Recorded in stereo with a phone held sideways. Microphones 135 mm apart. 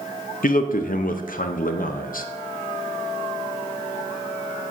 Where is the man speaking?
75° left (ahead or behind), 0.7 m.